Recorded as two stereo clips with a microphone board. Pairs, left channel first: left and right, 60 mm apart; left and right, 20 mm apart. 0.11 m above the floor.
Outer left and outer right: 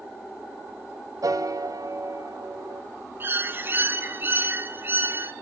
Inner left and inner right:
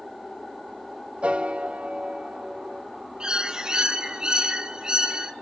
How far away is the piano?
About 0.6 m.